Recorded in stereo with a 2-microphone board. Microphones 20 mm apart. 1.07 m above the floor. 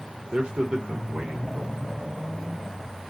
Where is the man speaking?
70° right (ahead or behind), 0.9 m.